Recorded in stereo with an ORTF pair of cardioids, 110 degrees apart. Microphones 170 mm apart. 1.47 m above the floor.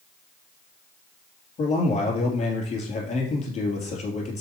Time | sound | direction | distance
1.6 | a man speaking | 45° left | 3 m